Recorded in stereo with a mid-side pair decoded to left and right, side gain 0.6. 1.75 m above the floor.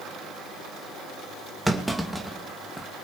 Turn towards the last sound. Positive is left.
turn(degrees=-5)